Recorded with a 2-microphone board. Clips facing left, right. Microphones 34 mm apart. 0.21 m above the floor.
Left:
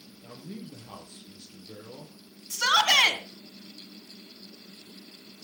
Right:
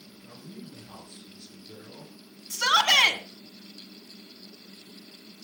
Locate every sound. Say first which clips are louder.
0.2 s a man speaking: left 3 dB; 65° left (ahead or behind), 5 m
2.5 s a shout: right 1 dB; centre (ahead or behind), 1.7 m